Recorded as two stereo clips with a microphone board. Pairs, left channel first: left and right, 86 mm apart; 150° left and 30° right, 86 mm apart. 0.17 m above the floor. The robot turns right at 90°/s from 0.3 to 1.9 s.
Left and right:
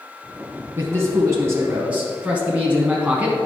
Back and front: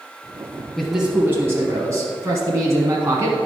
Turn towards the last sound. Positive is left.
turn(degrees=-25)